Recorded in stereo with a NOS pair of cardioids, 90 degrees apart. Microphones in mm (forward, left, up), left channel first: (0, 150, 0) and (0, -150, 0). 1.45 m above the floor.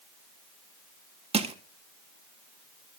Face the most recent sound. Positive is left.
turn(degrees=-20)